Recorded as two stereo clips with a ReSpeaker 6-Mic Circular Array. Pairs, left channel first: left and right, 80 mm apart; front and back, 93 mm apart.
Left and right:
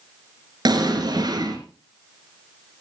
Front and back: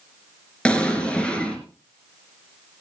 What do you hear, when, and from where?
0.7 s an explosion: 80° right, 3 m